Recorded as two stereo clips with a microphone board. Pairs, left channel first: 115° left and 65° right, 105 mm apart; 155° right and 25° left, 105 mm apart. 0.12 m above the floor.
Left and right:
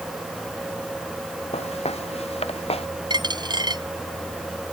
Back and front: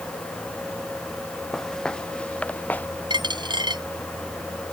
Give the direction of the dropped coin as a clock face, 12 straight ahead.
1 o'clock.